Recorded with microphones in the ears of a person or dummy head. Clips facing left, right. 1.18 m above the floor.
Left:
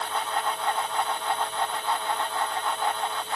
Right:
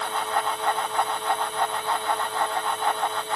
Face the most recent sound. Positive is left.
No sound to turn to.